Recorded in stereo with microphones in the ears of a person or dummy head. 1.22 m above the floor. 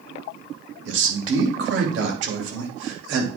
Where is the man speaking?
75° right (ahead or behind), 3 m.